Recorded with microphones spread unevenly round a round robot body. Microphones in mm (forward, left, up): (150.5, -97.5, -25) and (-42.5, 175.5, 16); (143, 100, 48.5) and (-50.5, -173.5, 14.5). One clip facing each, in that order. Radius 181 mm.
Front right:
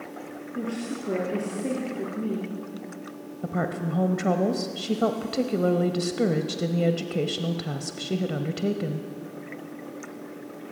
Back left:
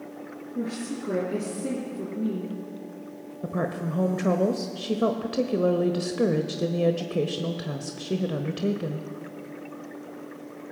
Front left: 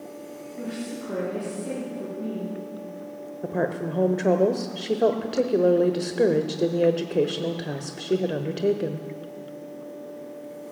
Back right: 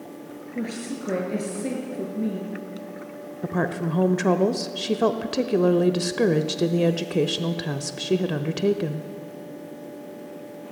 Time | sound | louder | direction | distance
0.6 | a woman speaking | even, back right 3 dB | 150° right | 4.5 m
3.4 | a woman speaking | even, even | 125° right | 0.9 m